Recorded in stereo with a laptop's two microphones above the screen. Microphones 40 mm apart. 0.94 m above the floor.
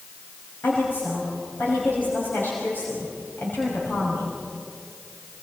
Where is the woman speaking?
55° left (ahead or behind), 6 m.